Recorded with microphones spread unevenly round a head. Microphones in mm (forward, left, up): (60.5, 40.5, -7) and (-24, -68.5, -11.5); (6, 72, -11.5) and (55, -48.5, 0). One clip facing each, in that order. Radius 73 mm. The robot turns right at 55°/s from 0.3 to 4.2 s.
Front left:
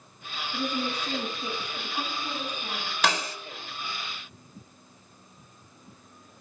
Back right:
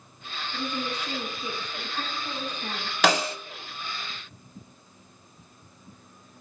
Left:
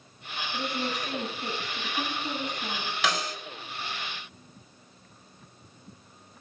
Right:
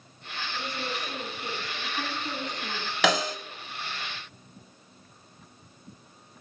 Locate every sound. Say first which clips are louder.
0.5 s a woman speaking: front left 2 dB, left 3 dB; 40° left, 9.5 m; by 2.9 s 170° left, 9.5 m
3.0 s a snare drum: back right 5 dB, right 6 dB; 110° right, 1.7 m; by 3.4 s 90° right, 1.7 m